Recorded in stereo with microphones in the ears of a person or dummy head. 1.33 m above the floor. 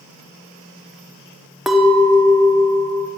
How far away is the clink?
About 0.6 m.